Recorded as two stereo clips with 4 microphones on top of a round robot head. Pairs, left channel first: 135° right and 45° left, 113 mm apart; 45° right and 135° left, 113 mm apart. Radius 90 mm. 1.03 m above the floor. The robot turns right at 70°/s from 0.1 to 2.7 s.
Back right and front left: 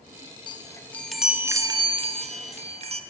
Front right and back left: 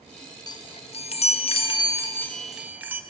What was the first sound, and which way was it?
A chime, 95° right.